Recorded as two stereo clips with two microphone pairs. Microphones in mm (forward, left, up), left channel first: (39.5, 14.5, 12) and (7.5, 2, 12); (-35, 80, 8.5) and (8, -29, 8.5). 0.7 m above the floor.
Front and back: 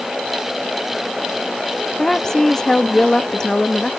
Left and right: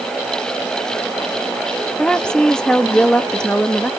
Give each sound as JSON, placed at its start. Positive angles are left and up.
{"t": 2.0, "sound": "a woman speaking", "azimuth_deg": 50, "distance_m": 0.6}